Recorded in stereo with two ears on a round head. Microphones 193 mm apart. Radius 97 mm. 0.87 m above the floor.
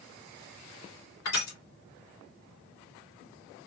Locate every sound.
1.2 s crushing: 75° left (ahead or behind), 3 m